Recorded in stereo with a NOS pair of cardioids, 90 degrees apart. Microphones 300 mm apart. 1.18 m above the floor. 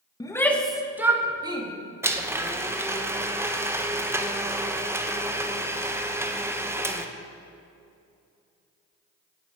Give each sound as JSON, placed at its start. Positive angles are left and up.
{"t": 0.2, "sound": "a shout", "azimuth_deg": 15, "distance_m": 1.5}
{"t": 2.0, "sound": "a blender", "azimuth_deg": -10, "distance_m": 0.9}